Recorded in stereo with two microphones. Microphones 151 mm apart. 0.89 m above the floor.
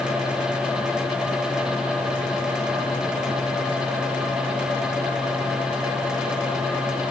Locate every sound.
Only background noise.